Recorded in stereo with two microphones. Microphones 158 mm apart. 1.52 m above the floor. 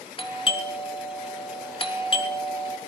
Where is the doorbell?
35° left (ahead or behind), 1.4 m.